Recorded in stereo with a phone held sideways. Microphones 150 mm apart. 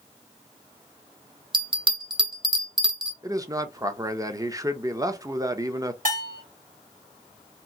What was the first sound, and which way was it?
A bell, 35° right (ahead or behind).